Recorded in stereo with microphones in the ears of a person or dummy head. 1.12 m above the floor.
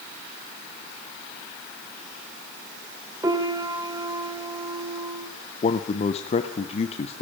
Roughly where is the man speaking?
Left.